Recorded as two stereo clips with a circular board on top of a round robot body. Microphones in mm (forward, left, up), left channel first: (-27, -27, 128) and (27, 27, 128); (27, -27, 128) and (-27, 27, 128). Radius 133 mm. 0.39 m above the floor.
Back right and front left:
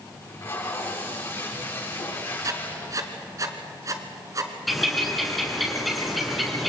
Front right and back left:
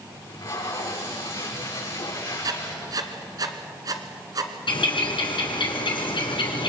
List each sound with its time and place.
0.2 s tape being pulled: 85° right, 8 m
2.4 s writing: 95° left, 1.4 m
4.7 s a bird: 45° right, 3 m